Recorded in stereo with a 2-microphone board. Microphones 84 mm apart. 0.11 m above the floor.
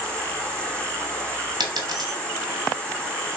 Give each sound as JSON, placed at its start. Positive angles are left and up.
{"t": 0.0, "sound": "an insect", "side_deg": 15, "distance_m": 1.4}
{"t": 1.6, "sound": "a dropped coin", "side_deg": -55, "distance_m": 0.9}